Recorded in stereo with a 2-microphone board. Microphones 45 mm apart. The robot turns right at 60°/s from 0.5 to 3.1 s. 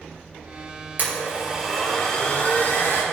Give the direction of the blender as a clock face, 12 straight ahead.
2 o'clock.